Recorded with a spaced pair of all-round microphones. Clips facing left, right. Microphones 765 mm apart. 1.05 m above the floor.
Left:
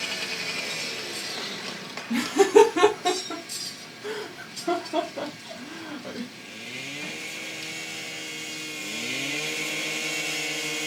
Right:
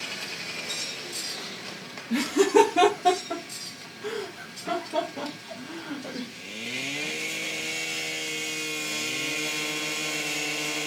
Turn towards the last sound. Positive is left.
turn(degrees=-55)  # may be behind; listen again after turning